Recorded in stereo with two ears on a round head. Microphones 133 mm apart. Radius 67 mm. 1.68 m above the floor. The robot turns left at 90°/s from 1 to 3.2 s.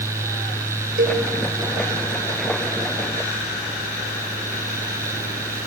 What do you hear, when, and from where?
1.0 s a cowbell: 65° right (ahead or behind), 5.5 m; by 1.2 s 80° right, 5.5 m